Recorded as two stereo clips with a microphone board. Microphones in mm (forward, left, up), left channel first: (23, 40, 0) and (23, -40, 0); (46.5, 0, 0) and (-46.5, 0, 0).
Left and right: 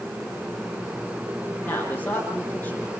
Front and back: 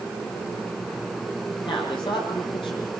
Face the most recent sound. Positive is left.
turn(degrees=25)